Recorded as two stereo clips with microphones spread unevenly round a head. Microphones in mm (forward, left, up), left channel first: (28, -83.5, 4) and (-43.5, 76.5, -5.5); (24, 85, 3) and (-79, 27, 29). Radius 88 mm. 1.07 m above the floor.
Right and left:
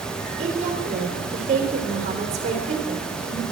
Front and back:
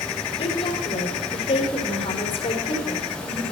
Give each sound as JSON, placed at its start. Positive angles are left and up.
{"t": 0.4, "sound": "a woman speaking", "azimuth_deg": 60, "distance_m": 3.5}